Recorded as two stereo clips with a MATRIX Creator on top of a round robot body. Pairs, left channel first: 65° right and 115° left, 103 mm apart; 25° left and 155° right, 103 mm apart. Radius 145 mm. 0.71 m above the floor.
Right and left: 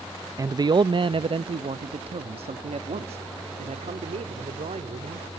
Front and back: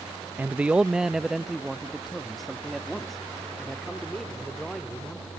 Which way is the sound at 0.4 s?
140° left.